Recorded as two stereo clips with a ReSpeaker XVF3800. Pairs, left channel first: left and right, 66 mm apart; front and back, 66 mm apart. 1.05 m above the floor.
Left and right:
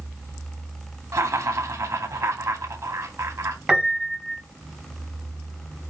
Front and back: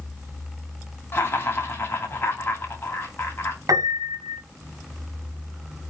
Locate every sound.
1.1 s laughter: 55° right, 2.5 m
3.7 s a piano: 165° right, 1.7 m